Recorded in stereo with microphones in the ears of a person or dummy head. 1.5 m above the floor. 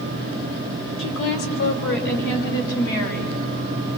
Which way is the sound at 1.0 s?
65° left (ahead or behind).